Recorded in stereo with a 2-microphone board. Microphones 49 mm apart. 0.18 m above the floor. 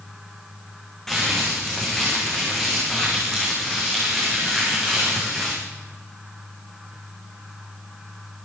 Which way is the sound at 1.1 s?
5° left (ahead or behind).